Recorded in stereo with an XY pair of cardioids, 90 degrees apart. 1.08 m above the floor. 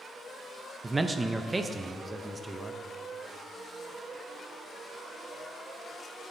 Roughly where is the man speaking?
Ahead right.